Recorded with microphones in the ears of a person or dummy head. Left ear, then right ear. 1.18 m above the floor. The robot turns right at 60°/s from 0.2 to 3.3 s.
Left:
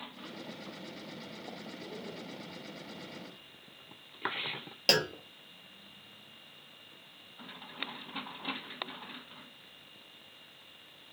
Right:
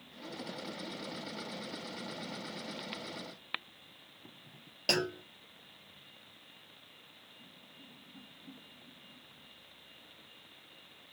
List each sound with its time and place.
4.9 s a clunk: 15° left (ahead or behind), 0.5 m